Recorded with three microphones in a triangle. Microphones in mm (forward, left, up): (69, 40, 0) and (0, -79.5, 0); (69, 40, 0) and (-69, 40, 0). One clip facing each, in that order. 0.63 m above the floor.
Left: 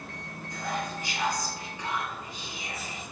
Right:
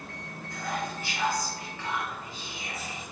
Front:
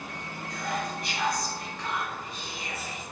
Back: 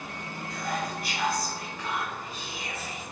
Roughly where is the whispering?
Left.